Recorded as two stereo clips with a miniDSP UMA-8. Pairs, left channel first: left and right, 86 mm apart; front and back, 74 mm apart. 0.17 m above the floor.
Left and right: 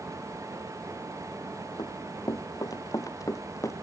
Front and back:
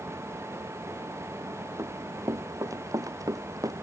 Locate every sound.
1.8 s running footsteps: 130° left; by 3.7 s 140° left